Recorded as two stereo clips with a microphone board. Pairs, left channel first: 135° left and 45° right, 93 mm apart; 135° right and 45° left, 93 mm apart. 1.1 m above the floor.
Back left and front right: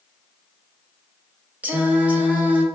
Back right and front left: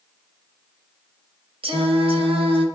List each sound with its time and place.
1.6 s singing: 30° left, 0.6 m